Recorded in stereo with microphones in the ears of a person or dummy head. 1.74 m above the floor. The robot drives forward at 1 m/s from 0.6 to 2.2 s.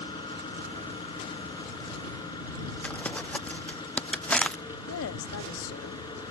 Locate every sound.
0.0 s an engine running: 25° left (ahead or behind); by 6.3 s 20° left (ahead or behind)
2.8 s crumpling: 5° left (ahead or behind)
4.9 s a woman speaking: 65° left (ahead or behind)